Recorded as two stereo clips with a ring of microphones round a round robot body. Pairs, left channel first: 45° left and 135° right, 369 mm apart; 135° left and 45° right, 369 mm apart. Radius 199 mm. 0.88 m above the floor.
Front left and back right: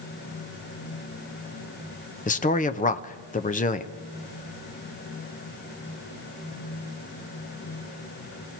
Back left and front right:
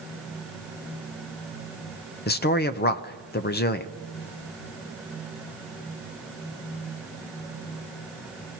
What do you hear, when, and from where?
2.3 s a man speaking: 95° left, 0.8 m